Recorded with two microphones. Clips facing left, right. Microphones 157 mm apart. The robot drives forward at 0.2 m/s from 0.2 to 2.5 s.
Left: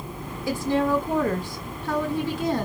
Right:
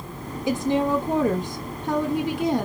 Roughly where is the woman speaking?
Right.